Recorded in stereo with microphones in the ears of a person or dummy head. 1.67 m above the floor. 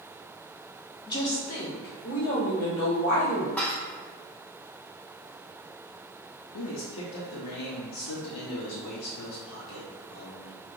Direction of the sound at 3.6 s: 10° left (ahead or behind).